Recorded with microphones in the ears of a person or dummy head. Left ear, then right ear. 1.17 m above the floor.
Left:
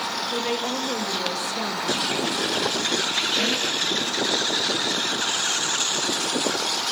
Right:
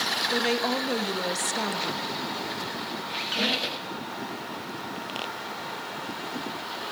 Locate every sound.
0.3 s a woman speaking: 5° right (ahead or behind), 1.1 m
3.1 s a squeak: 5° left (ahead or behind), 1.8 m